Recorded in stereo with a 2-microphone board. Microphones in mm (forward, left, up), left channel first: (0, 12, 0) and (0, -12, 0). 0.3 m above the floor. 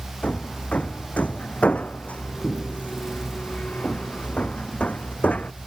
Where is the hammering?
85° left.